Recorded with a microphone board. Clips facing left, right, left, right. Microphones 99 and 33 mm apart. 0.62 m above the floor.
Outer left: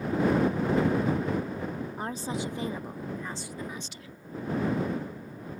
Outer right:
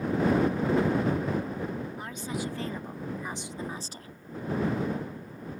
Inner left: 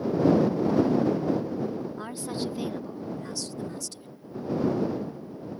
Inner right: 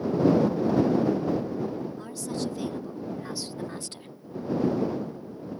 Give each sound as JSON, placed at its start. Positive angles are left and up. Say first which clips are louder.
{"t": 2.0, "sound": "a woman speaking", "louder": "outer left 2 dB, even", "side_deg": 40}